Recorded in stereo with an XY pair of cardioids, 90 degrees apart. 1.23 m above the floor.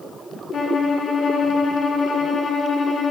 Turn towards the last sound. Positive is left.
turn(degrees=60)